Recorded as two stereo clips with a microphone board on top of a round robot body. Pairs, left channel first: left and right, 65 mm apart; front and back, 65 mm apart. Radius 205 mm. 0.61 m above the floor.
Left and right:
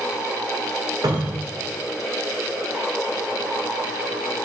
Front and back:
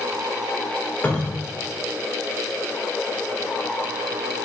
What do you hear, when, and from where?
1.0 s a cupboard door: 70° right, 1.9 m